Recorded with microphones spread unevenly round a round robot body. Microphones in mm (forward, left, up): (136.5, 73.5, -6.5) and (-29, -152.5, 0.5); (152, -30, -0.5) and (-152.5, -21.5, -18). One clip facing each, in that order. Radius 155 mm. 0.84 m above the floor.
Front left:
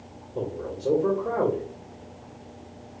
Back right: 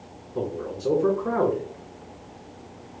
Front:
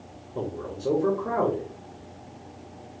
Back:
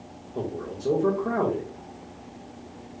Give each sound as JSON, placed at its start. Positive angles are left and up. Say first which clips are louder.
{"t": 0.3, "sound": "a man speaking", "louder": "back right 2 dB, back 1 dB", "azimuth_deg": -85, "distance_m": 1.0}